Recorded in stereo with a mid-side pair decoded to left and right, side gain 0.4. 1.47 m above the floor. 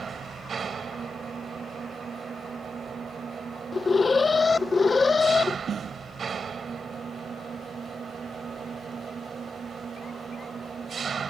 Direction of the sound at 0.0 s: 45° right.